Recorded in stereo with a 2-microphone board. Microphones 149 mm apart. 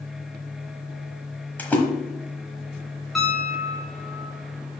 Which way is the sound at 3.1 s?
Centre (ahead or behind).